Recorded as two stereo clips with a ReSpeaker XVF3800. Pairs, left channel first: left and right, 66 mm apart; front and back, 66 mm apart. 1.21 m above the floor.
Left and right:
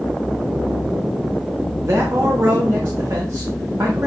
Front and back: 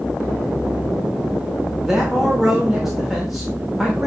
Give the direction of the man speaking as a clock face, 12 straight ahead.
3 o'clock.